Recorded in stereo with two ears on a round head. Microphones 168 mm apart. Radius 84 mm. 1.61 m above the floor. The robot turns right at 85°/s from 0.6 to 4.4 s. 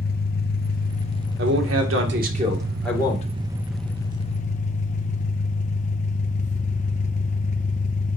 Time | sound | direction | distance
0.0 | an engine running | 90° left | 1.0 m
1.4 | a man speaking | 120° right | 2 m